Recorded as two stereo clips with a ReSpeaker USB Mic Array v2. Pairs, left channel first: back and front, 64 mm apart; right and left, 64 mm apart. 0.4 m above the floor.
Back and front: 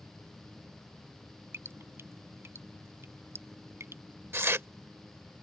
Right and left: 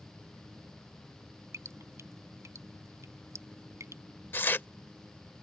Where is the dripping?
50° left.